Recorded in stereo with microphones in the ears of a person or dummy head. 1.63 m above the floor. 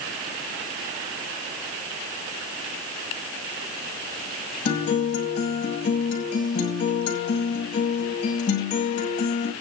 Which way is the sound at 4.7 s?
35° left (ahead or behind).